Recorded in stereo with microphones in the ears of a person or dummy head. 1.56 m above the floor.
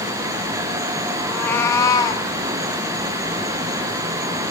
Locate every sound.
1.2 s a cat meowing: 5° left (ahead or behind), 1.1 m; by 2.3 s 30° left (ahead or behind), 1.8 m